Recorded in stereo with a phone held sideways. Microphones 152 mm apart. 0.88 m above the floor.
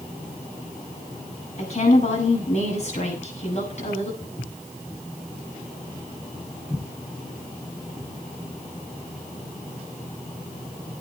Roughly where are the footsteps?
Left.